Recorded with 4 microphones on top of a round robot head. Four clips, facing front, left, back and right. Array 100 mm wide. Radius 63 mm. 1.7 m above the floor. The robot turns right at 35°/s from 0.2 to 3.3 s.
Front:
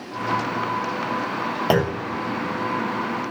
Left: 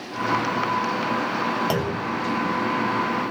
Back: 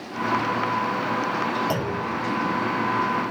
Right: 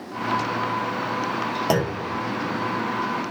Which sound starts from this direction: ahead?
A clunk, at 1.7 s.